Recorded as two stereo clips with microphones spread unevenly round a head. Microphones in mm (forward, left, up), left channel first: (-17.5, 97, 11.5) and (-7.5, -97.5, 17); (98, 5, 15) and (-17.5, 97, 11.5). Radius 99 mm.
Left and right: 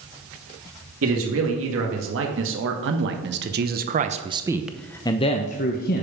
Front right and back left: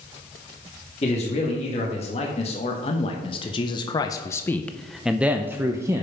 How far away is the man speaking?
About 2.5 m.